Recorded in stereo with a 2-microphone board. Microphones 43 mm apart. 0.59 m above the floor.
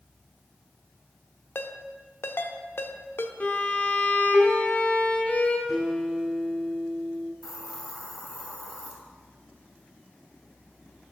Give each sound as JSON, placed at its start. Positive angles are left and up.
{"t": 1.6, "sound": "a ringtone", "side_deg": 65, "distance_m": 0.6}
{"t": 3.4, "sound": "a violin", "side_deg": 40, "distance_m": 0.7}
{"t": 5.7, "sound": "a guitar", "side_deg": -10, "distance_m": 3.5}
{"t": 7.4, "sound": "a hiss", "side_deg": -5, "distance_m": 1.3}